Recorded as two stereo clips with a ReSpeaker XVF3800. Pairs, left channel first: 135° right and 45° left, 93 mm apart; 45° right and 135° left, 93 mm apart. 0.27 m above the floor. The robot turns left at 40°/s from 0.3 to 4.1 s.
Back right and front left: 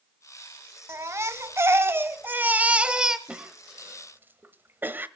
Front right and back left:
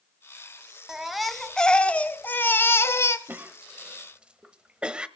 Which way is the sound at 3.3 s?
105° left.